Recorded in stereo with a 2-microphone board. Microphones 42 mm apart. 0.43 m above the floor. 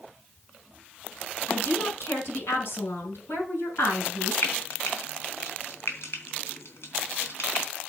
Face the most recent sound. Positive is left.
turn(degrees=70)  # may be behind; listen again after turning